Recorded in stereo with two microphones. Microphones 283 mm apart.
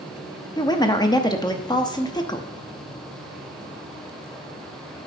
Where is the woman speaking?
15° left (ahead or behind), 0.8 m.